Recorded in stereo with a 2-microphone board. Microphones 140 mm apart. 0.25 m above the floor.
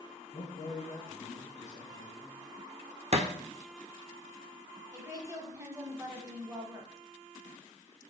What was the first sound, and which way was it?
A man speaking, 50° left (ahead or behind).